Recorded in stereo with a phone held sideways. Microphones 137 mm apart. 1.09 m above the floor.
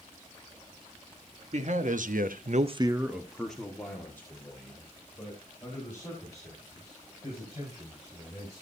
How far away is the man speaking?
About 1.6 m.